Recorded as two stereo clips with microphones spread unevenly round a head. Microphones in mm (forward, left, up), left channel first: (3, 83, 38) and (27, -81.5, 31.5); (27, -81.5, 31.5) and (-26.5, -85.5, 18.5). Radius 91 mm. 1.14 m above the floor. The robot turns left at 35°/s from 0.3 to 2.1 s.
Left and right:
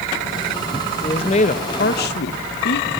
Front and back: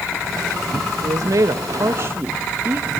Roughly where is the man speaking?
Behind.